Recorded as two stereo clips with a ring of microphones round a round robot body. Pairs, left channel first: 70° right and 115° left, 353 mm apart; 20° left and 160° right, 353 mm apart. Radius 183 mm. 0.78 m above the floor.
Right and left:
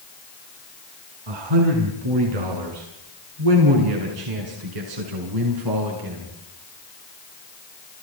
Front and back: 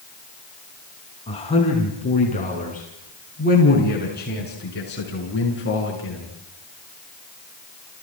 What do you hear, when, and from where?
1.3 s a man speaking: 100° left, 7 m; by 6.3 s 80° left, 8.5 m